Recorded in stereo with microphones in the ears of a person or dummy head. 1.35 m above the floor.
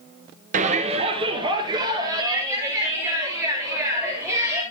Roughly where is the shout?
Right.